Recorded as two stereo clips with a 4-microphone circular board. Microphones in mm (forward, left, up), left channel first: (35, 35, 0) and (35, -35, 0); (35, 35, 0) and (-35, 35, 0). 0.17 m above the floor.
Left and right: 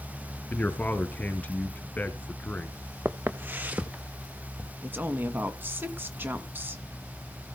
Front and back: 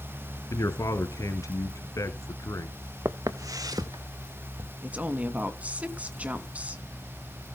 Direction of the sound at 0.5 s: 25° left.